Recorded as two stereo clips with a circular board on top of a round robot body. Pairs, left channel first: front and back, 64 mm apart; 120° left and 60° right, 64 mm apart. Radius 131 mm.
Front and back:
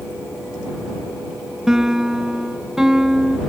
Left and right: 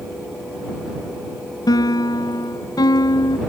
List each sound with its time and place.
1.7 s a piano: 95° left